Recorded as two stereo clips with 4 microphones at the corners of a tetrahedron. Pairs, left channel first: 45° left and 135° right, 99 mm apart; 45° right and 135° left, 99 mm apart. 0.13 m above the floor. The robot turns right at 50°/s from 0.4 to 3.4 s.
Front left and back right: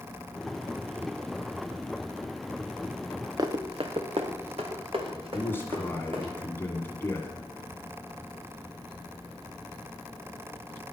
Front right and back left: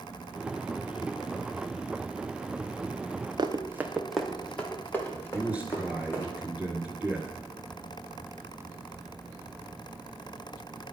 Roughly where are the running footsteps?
Behind.